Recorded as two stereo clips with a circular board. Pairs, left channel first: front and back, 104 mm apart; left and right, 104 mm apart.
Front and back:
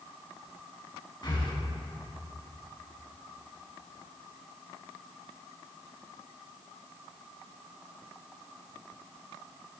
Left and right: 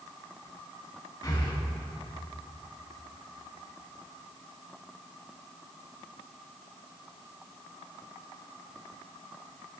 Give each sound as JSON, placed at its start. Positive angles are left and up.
{"t": 1.2, "sound": "breathing", "azimuth_deg": 40, "distance_m": 3.0}